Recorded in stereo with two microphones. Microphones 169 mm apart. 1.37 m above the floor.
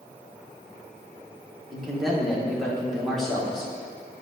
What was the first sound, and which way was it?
A man speaking, centre (ahead or behind).